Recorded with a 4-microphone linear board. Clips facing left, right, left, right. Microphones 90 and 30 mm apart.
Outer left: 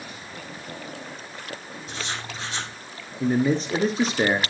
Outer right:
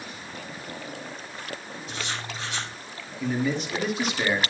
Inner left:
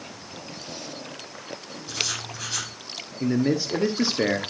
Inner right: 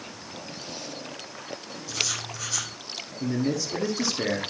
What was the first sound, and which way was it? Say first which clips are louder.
Writing: outer left 1 dB, inner left 1 dB; 30° left (ahead or behind).